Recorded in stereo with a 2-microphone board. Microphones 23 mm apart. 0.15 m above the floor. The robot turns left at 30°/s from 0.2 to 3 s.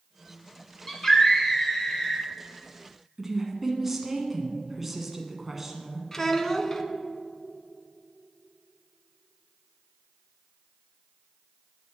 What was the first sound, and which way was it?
A scream, 25° left (ahead or behind).